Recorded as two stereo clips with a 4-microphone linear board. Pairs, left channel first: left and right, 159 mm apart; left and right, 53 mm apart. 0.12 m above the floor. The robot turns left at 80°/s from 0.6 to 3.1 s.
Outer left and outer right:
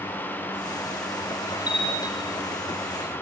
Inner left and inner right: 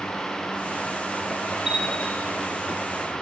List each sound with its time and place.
1.7 s a bell: 170° right, 3.5 m; by 2.2 s 145° left, 3.5 m